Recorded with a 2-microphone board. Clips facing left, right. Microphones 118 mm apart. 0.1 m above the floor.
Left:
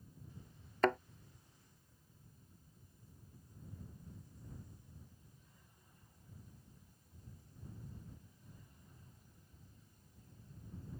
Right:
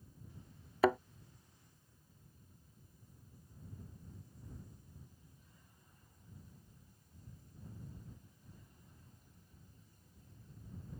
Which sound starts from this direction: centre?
A thud, at 0.8 s.